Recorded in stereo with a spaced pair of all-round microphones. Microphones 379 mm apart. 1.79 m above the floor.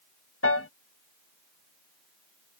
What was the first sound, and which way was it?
A piano, 35° left (ahead or behind).